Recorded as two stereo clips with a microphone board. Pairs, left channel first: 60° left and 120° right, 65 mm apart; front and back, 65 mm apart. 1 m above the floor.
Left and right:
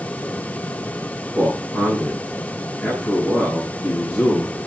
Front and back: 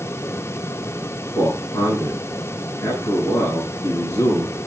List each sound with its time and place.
1.4 s a man speaking: 5° right, 8.5 m